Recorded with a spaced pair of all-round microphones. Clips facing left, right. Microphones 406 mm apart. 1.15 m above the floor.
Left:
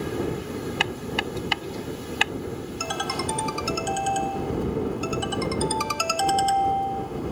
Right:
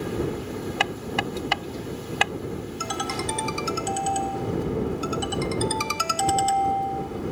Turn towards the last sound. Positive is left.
turn(degrees=-35)  # may be behind; listen again after turning